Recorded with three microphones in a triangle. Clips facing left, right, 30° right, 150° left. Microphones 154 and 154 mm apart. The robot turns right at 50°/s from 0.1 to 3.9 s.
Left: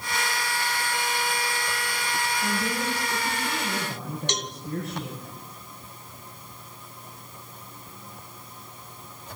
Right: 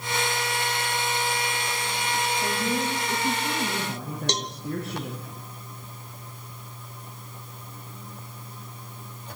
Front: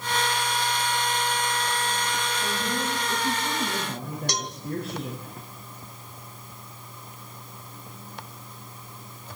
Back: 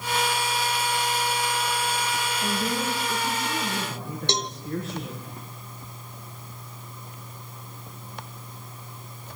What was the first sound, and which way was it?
A woman speaking, 160° right.